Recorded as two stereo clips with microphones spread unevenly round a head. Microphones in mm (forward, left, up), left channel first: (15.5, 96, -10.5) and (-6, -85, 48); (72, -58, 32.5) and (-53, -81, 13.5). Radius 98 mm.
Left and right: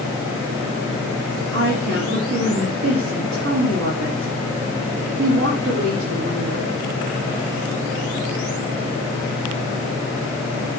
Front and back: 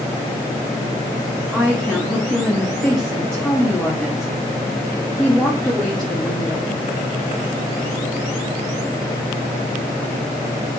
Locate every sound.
1.5 s a woman speaking: 75° right, 2.5 m